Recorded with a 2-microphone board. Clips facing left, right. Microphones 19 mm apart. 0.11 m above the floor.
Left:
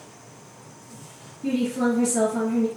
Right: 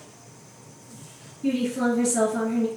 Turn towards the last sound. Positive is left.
turn(degrees=-10)  # may be behind; listen again after turning